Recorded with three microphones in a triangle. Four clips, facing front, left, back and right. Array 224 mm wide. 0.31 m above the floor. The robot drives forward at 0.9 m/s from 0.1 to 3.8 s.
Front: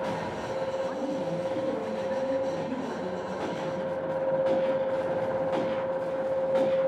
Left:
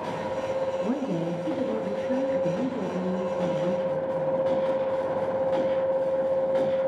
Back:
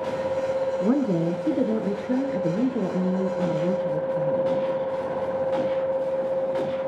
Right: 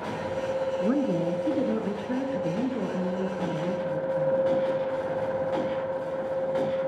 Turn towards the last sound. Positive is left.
turn(degrees=-175)